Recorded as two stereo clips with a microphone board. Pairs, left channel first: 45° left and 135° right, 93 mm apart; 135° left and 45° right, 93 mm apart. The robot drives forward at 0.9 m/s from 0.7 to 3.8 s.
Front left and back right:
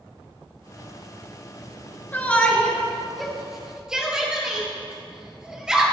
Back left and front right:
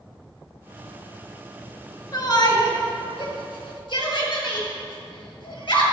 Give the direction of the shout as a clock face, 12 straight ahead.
8 o'clock.